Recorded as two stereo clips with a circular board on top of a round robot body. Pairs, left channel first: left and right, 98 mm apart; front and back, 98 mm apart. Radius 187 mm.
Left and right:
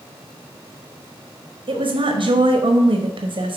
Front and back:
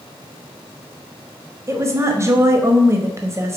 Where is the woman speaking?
120° right, 1.2 m.